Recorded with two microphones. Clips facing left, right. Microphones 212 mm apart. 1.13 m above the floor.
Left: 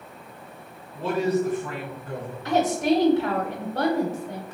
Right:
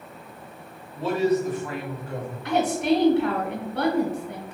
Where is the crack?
No crack in this recording.